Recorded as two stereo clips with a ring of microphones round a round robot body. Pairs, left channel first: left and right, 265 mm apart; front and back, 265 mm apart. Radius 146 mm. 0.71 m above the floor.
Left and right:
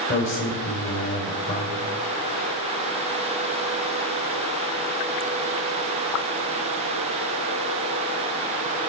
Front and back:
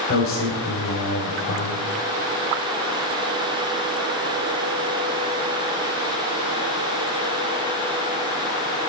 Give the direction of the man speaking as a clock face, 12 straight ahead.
11 o'clock.